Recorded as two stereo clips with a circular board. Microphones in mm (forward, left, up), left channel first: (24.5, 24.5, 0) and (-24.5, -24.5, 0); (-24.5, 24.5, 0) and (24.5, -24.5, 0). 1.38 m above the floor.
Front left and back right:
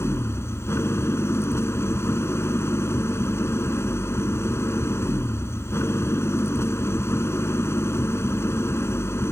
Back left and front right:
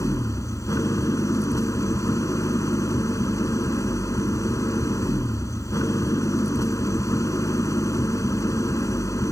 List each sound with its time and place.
0.0 s an engine running: 95° left